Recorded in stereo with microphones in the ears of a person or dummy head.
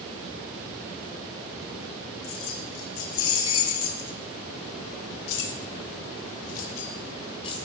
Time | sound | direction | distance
2.2 | keys jangling | 75° left (ahead or behind) | 3 m